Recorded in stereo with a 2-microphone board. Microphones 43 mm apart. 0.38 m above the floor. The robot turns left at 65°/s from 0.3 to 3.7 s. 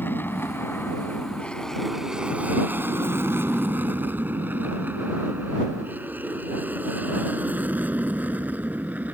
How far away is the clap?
I don't hear a clap.